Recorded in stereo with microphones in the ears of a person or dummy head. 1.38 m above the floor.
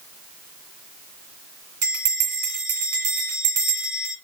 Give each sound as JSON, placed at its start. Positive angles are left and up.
{"t": 1.8, "sound": "a bell", "side_deg": -60, "distance_m": 2.5}